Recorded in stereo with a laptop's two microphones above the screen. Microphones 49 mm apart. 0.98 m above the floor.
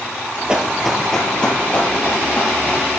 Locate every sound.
0.5 s running footsteps: 20° right (ahead or behind), 1.0 m; by 2.8 s 35° left (ahead or behind), 2.5 m